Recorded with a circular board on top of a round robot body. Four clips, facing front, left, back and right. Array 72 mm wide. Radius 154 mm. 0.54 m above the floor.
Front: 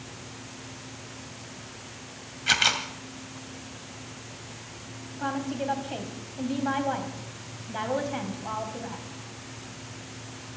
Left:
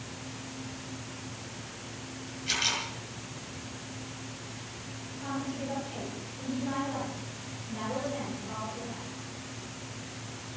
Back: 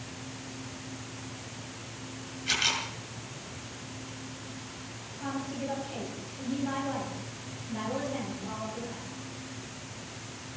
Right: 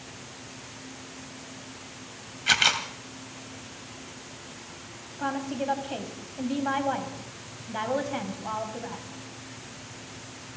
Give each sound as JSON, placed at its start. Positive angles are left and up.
{"t": 2.5, "sound": "a camera shutter", "azimuth_deg": -55, "distance_m": 2.5}
{"t": 5.2, "sound": "a woman speaking", "azimuth_deg": -55, "distance_m": 3.5}